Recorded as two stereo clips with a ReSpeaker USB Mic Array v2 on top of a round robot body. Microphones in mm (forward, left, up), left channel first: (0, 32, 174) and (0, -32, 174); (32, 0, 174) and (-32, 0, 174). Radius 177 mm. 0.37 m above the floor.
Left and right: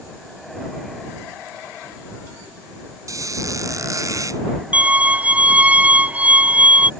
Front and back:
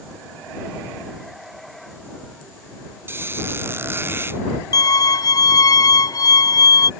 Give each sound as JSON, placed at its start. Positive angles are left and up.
{"t": 3.1, "sound": "a squeak", "azimuth_deg": -125}
{"t": 4.7, "sound": "a violin", "azimuth_deg": -20}